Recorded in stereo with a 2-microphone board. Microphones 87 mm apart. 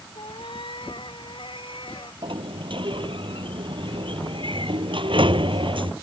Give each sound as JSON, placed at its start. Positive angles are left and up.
{"t": 0.1, "sound": "a cat meowing", "side_deg": 70}
{"t": 2.2, "sound": "a sliding door", "side_deg": -70}